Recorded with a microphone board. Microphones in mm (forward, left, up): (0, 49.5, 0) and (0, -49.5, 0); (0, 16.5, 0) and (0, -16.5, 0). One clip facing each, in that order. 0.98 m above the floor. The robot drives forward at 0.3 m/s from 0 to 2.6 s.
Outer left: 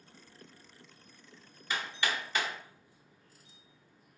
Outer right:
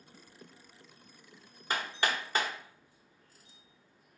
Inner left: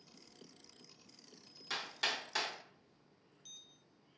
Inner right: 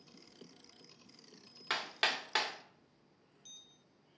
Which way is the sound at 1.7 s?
45° right (ahead or behind).